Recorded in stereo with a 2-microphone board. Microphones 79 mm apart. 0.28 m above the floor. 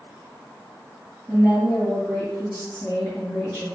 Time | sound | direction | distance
1.3 | a woman speaking | 35° left (ahead or behind) | 1.3 m